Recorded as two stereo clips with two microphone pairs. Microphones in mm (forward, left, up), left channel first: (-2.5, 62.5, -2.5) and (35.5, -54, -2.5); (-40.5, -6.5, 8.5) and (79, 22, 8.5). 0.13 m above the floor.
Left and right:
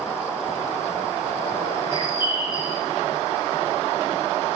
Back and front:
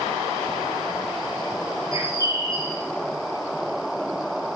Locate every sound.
1.9 s a bird: 70° left, 2.5 m